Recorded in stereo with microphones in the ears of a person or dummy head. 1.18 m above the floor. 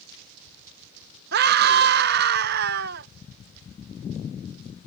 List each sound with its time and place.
1.3 s a scream: 55° right (ahead or behind)